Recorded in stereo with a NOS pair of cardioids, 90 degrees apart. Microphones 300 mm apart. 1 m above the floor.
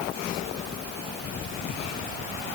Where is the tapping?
No tapping in this recording.